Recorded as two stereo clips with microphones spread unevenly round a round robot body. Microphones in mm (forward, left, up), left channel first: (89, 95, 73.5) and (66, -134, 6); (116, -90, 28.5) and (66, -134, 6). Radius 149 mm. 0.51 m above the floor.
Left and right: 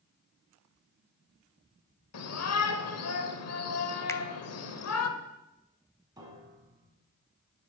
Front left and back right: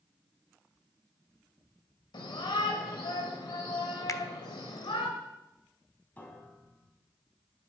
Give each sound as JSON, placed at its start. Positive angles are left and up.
{"t": 2.1, "sound": "a shout", "azimuth_deg": 70, "distance_m": 2.5}
{"t": 4.1, "sound": "a finger snap", "azimuth_deg": -5, "distance_m": 1.4}
{"t": 6.2, "sound": "a piano", "azimuth_deg": -25, "distance_m": 4.0}